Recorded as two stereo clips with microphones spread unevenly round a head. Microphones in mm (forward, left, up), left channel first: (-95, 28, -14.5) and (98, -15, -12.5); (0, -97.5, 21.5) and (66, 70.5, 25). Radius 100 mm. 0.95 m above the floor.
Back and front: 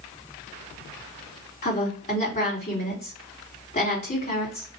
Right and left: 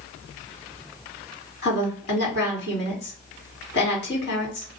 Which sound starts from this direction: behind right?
A woman speaking, at 1.6 s.